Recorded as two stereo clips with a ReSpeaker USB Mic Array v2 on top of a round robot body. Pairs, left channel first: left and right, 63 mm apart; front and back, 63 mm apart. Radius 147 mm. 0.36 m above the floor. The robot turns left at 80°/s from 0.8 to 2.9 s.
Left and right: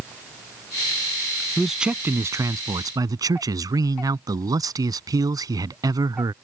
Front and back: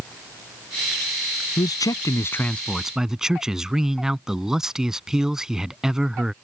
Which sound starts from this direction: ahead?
A man speaking, at 1.6 s.